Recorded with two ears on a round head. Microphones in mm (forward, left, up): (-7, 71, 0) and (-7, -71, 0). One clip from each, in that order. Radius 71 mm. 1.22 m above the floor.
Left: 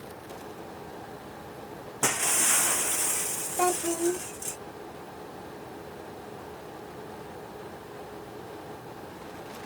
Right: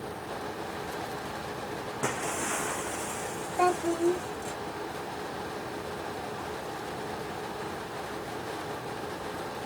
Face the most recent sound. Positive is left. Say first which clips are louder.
# right 1 dB
turn(degrees=0)  # may be behind; listen again after turning